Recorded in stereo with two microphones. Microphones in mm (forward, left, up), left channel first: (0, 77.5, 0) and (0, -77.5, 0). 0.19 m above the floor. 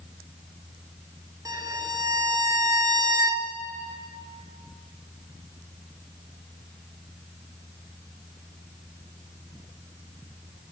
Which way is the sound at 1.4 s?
20° right (ahead or behind).